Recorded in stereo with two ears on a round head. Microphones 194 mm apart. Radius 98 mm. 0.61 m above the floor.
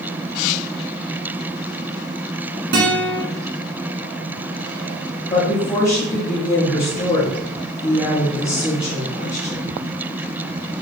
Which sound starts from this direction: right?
A guitar, at 2.7 s.